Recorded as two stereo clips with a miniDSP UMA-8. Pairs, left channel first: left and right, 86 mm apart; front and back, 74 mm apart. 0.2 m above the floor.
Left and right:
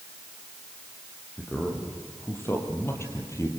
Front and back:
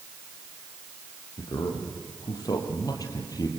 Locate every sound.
1.4 s a man speaking: 20° left, 6 m; by 3.5 s 35° left, 5 m